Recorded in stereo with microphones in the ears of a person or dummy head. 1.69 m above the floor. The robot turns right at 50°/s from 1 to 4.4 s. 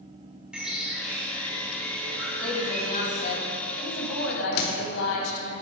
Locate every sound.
0.5 s a bird: 175° right, 1.2 m; by 3.4 s 55° right, 1.2 m
2.4 s a woman speaking: straight ahead, 1.6 m; by 5.5 s 100° left, 1.6 m
4.5 s a door slam: 60° left (ahead or behind), 1.0 m